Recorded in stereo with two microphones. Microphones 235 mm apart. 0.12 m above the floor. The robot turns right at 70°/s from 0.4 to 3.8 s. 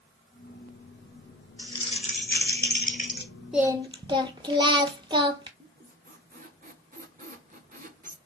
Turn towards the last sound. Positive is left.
turn(degrees=-35)  # may be behind; listen again after turning